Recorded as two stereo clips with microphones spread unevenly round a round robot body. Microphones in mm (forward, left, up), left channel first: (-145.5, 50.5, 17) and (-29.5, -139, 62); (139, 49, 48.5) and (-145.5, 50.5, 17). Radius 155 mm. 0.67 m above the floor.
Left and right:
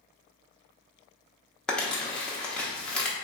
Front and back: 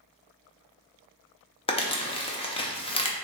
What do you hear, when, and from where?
1.7 s crumpling: 65° left, 0.7 m